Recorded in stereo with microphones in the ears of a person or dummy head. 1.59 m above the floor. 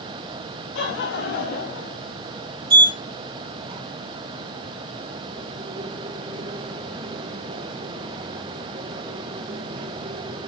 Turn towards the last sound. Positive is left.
turn(degrees=-30)  # may be behind; listen again after turning